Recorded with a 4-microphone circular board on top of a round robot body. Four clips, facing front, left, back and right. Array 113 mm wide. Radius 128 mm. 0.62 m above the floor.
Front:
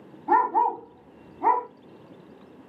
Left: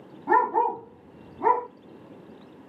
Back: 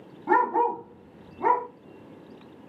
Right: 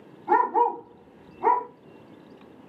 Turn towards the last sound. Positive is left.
turn(degrees=145)